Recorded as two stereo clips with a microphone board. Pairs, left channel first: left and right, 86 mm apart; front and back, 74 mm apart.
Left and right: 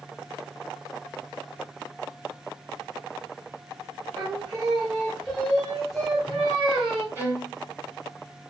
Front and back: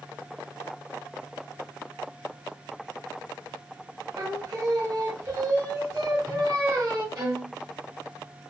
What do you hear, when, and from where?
4.2 s singing: 175° left, 1.3 m
7.2 s a violin: 150° right, 1.7 m